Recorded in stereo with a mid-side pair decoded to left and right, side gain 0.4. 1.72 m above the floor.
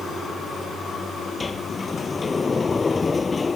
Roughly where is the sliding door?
Ahead left.